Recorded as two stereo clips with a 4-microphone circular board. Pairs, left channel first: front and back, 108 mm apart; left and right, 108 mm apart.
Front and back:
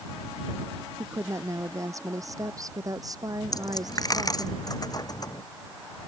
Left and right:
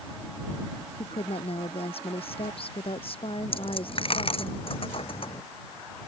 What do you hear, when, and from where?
1.0 s a woman speaking: 120° left; by 4.5 s 125° left
3.5 s a dropped coin: 55° left